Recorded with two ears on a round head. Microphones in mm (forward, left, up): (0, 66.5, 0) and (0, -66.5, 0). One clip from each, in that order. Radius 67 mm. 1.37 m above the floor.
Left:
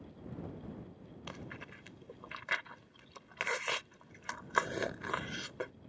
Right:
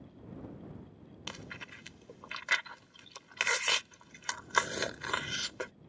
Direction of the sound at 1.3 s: 75° right (ahead or behind).